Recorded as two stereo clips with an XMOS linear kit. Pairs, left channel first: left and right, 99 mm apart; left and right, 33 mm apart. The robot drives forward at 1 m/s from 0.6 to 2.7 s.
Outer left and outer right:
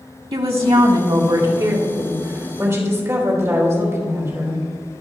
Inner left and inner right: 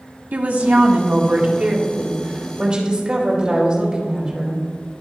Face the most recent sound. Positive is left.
turn(degrees=-30)  # may be behind; listen again after turning